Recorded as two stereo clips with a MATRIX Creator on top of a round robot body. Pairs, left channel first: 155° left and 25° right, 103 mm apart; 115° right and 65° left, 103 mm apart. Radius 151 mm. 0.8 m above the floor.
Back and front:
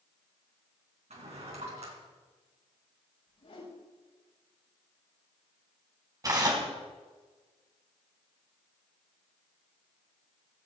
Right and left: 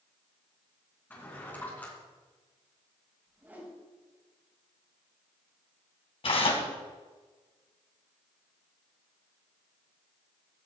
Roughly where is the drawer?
Ahead right.